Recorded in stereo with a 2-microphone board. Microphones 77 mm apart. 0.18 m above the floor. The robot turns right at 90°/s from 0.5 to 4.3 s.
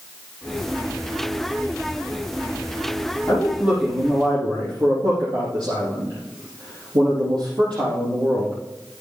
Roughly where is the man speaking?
Behind.